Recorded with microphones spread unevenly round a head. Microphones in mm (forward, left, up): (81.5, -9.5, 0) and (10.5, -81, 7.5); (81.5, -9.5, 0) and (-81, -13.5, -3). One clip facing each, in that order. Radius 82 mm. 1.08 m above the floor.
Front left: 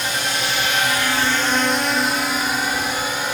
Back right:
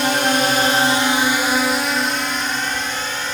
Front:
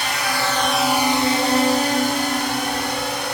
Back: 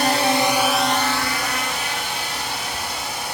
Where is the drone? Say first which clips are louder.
Back right 7 dB, back 5 dB; 145° right; by 3.3 s 30° right.